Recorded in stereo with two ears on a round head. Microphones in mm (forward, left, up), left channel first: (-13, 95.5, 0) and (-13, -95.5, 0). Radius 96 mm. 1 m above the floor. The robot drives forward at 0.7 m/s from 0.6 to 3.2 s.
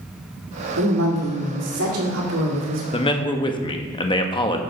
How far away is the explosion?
I don't hear an explosion.